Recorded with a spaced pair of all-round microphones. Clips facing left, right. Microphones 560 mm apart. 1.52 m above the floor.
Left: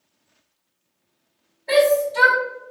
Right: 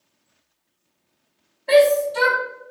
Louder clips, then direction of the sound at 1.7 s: Right 2 dB; 35° right (ahead or behind).